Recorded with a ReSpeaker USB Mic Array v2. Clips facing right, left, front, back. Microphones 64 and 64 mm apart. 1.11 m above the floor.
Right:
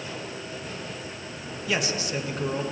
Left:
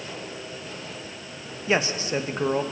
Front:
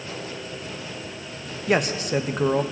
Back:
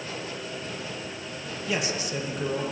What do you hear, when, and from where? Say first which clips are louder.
1.7 s a man speaking: left 4 dB, front 7 dB; 35° left, 1.3 m